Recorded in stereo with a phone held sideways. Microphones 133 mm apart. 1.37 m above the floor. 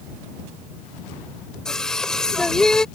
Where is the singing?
5° left (ahead or behind).